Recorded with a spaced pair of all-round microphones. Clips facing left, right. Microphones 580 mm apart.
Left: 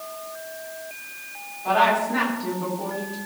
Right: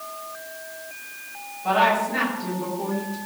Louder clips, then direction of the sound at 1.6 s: Even; 55° right (ahead or behind).